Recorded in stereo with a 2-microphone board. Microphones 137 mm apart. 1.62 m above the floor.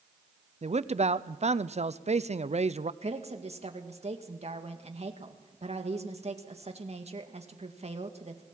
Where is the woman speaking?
50° right (ahead or behind), 1.9 m.